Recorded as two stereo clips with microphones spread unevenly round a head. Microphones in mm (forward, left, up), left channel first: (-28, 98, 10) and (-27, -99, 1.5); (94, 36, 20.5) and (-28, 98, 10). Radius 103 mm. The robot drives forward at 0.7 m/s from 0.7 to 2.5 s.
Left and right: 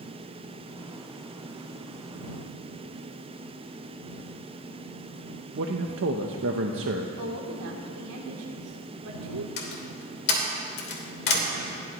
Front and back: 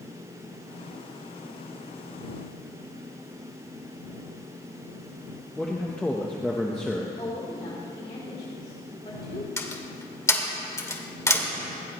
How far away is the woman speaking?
About 3 m.